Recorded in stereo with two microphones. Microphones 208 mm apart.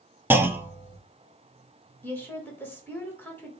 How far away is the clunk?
About 0.5 m.